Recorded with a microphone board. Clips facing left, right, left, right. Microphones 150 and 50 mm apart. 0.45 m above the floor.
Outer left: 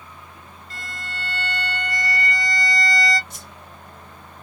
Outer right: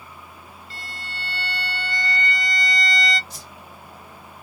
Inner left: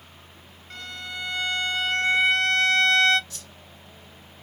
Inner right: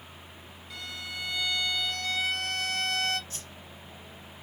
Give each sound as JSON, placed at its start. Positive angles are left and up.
{"t": 0.7, "sound": "a violin", "side_deg": 45, "distance_m": 0.8}
{"t": 3.3, "sound": "a whoosh", "side_deg": -35, "distance_m": 0.7}